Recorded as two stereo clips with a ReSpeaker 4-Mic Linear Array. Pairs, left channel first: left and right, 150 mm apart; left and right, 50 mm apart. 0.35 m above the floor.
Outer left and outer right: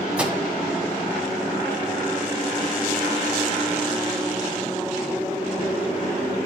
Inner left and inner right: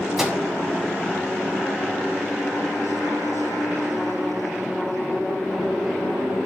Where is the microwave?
10° right (ahead or behind), 1.8 m.